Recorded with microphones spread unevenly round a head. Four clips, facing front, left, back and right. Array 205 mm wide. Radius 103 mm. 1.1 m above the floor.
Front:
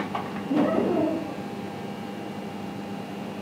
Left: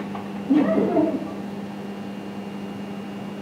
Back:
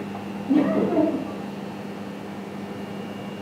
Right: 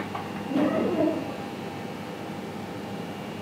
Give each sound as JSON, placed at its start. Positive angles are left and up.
{"t": 0.5, "sound": "laughter", "azimuth_deg": 130, "distance_m": 1.8}